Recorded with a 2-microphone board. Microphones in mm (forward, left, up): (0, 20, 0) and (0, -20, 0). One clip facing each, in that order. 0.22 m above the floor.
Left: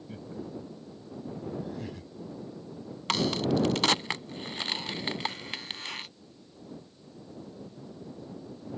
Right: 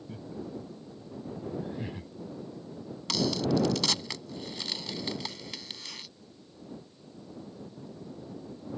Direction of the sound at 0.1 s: 20° left (ahead or behind).